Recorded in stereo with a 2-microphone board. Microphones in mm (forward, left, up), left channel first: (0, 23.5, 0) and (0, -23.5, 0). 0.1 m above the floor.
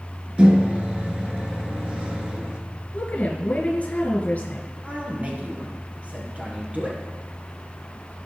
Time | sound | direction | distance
0.4 | a microwave | 25° right (ahead or behind) | 1.0 m
2.9 | a woman speaking | 35° left (ahead or behind) | 1.9 m
4.8 | a man speaking | 30° right (ahead or behind) | 2.5 m